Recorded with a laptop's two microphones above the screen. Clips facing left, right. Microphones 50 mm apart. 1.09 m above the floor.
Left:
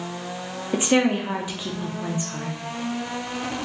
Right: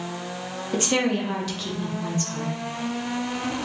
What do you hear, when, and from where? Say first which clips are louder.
0.7 s a woman speaking: left 3 dB; 15° left (ahead or behind), 0.5 m